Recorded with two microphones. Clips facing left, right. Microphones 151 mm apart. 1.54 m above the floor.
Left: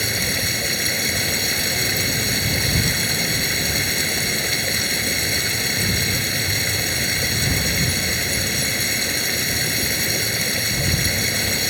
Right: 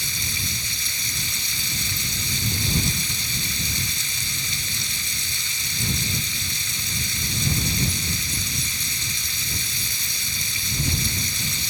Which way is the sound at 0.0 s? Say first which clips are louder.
Left 10 dB; 60° left (ahead or behind).